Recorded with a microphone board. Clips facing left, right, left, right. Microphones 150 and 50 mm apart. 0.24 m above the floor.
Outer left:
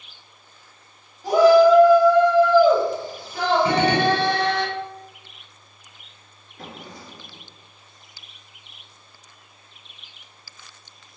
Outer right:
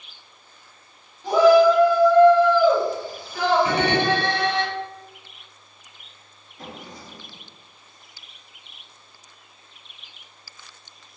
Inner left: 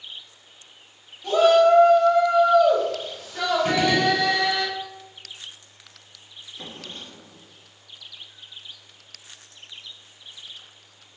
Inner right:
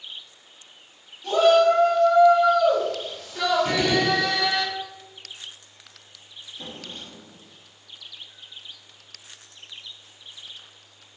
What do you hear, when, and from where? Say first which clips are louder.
1.2 s a shout: outer left 1 dB, inner left 1 dB; 10° left (ahead or behind), 1.2 m; by 4.7 s 25° left (ahead or behind), 1.6 m
3.6 s a gunshot: outer left 2 dB, inner left 2 dB; 30° left (ahead or behind), 0.6 m
6.6 s a drawer: even, even; 60° left (ahead or behind), 1.3 m